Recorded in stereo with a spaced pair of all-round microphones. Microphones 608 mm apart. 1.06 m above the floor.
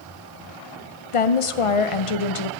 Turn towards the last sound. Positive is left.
turn(degrees=60)  # may be behind; listen again after turning